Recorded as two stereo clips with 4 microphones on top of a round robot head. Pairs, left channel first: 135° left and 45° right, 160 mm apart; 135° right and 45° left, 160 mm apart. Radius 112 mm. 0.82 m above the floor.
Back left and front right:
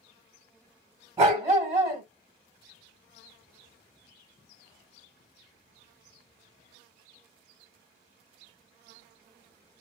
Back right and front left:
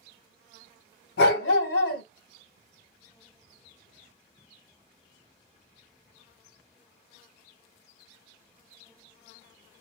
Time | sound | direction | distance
1.2 | a dog barking | 120° right | 1.8 m